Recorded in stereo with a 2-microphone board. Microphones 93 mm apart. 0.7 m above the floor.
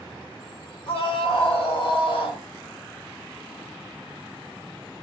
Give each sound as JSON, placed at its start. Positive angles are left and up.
{"t": 0.9, "sound": "a scream", "side_deg": 60, "distance_m": 1.9}